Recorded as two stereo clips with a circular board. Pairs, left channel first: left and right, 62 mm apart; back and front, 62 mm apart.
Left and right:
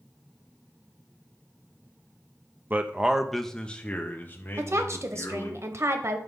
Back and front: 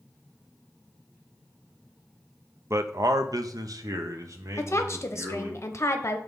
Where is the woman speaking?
135° right, 0.8 m.